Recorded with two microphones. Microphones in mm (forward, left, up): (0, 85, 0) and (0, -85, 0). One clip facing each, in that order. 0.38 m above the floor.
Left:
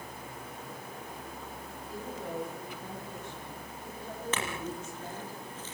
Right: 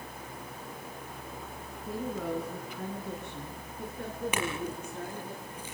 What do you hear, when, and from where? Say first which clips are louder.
1.9 s a woman speaking: right 6 dB; 70° right (ahead or behind), 4 m; by 5.3 s 55° right (ahead or behind), 7.5 m
4.3 s a clink: right 3 dB; 10° right (ahead or behind), 6.5 m